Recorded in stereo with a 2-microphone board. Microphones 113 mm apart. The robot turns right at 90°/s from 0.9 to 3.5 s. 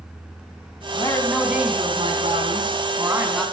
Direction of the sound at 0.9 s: 140° left.